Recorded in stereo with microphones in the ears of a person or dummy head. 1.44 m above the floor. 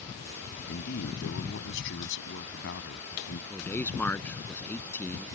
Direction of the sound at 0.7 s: 70° left (ahead or behind).